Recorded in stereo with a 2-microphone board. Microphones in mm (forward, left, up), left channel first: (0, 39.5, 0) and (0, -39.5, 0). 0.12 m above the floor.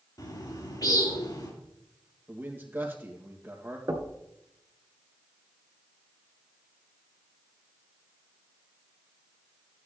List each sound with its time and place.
0.2 s a bird: 50° left (ahead or behind), 3.5 m
2.3 s a man speaking: 25° right (ahead or behind), 2.5 m
3.9 s knocking: 50° right (ahead or behind), 1.3 m